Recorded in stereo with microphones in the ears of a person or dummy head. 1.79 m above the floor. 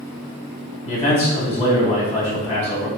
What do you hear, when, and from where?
0.8 s a man speaking: 30° left (ahead or behind), 1.1 m